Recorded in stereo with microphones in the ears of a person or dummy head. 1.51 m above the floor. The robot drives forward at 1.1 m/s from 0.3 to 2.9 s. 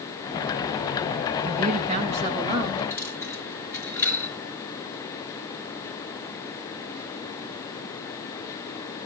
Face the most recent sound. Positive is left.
turn(degrees=10)  # may be behind; listen again after turning